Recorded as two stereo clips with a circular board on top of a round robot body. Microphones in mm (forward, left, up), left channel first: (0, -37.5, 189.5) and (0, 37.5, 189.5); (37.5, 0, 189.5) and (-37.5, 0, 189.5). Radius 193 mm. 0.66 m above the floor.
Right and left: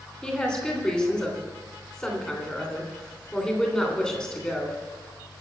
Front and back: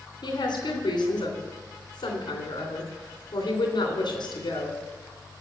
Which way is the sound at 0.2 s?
15° right.